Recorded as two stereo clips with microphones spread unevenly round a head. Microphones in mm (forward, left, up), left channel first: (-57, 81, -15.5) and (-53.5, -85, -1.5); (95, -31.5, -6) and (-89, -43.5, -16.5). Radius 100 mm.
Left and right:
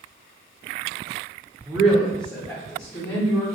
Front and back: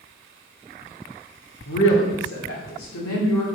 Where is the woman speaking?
10° right, 1.1 m; by 3.4 s 30° left, 1.8 m.